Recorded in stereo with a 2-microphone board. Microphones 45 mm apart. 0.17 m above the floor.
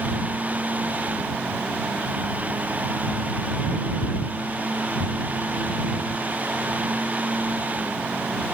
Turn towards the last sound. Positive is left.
No sound to turn to.